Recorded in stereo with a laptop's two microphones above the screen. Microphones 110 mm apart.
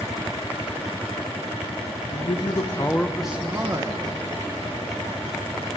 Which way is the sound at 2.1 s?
60° left (ahead or behind).